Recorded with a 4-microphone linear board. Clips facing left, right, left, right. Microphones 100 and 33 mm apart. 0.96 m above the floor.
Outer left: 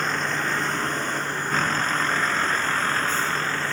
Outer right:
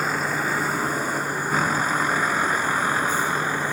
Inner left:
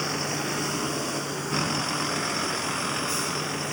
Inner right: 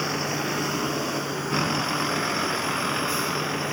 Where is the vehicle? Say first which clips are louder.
Outer right 1 dB, inner right 2 dB; 10° right (ahead or behind); by 3.7 s 15° right (ahead or behind).